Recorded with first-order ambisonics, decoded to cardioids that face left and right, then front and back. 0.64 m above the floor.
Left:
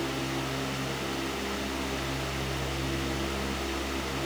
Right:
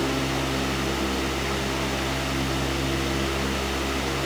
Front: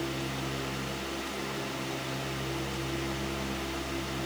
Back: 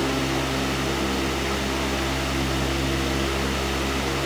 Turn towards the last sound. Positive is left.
No sound to turn to.